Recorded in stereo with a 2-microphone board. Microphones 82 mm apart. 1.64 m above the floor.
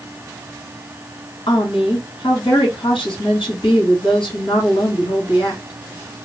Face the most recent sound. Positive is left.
turn(degrees=85)